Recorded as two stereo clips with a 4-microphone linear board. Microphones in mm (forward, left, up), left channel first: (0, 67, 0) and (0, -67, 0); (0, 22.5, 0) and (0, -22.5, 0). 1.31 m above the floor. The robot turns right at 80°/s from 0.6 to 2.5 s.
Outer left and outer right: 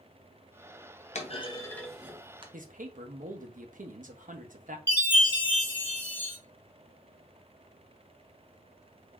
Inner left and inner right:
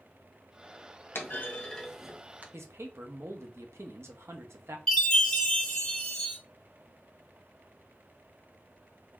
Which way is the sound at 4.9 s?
15° left (ahead or behind).